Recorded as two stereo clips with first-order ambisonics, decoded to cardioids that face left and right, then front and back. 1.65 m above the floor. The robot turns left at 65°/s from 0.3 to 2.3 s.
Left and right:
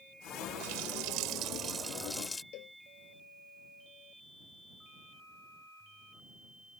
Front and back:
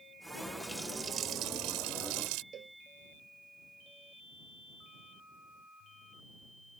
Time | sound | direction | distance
0.6 | a running tap | 85° right | ?
2.5 | a cowbell | 120° left | ?